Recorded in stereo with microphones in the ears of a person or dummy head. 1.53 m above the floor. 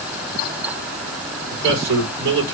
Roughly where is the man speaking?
Right.